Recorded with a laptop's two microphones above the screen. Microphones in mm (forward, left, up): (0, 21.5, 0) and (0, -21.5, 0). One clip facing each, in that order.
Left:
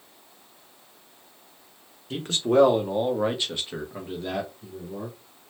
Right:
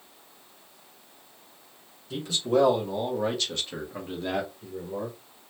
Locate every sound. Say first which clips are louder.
2.1 s a man speaking: left 3 dB; 50° left (ahead or behind), 1.1 m; by 5.2 s 35° right (ahead or behind), 1.1 m